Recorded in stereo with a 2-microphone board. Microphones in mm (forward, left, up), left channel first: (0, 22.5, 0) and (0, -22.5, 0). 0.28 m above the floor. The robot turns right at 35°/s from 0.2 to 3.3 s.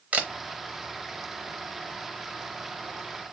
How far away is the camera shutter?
About 0.7 m.